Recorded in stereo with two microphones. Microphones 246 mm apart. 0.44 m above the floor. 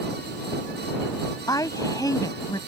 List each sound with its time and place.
1.5 s a woman speaking: 15° left (ahead or behind)